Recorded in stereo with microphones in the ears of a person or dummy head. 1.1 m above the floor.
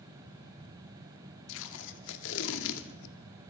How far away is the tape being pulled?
About 2 m.